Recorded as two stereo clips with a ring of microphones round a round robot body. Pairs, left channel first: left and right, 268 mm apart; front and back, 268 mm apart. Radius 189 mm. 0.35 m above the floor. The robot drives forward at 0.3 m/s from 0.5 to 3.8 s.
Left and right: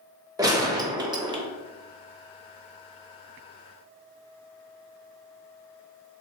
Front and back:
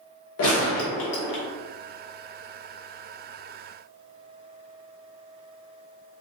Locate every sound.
0.4 s a gunshot: 15° right, 0.9 m; by 1.4 s 25° right, 0.7 m